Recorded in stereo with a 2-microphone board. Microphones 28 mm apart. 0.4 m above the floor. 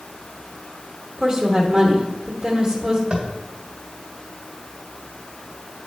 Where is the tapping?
35° right (ahead or behind), 1.6 m.